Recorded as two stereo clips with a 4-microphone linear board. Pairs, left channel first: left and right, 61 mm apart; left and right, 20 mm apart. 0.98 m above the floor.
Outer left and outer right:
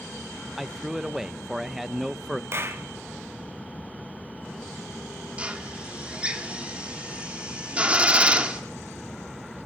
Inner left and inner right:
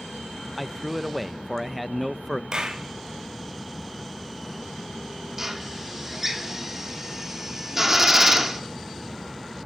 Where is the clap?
45° right (ahead or behind), 1.9 m.